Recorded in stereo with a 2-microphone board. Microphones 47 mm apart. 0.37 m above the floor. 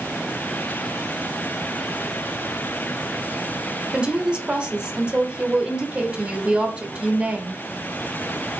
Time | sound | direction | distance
3.9 | a woman speaking | 20° right (ahead or behind) | 1.0 m